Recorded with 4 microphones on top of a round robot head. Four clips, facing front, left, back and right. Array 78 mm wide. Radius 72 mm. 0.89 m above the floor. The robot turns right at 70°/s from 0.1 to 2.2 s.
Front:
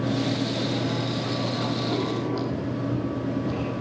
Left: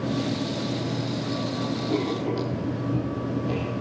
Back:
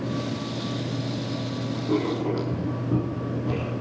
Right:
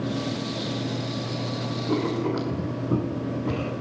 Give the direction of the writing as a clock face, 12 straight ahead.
4 o'clock.